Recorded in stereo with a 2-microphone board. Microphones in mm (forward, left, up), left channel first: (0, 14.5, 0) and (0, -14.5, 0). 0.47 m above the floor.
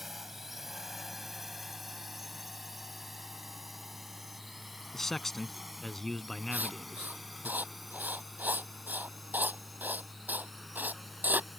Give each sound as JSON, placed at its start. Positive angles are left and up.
{"t": 0.0, "sound": "a drone", "side_deg": -10}
{"t": 4.9, "sound": "a man speaking", "side_deg": 10}
{"t": 6.5, "sound": "writing", "side_deg": -75}